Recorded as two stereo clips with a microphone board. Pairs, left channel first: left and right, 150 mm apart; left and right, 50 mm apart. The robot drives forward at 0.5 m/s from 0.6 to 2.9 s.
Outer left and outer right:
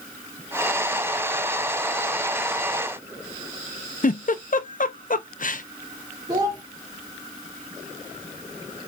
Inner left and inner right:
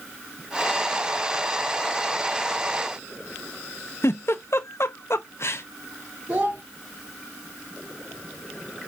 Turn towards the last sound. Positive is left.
turn(degrees=-30)  # may be behind; listen again after turning